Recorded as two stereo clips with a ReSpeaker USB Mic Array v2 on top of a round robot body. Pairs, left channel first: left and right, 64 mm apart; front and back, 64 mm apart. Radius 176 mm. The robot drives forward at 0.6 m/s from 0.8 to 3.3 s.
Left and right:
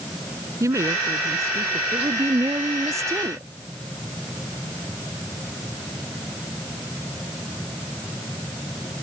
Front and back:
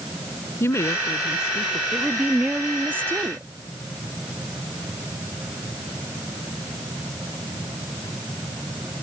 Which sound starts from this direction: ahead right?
A woman speaking, at 0.6 s.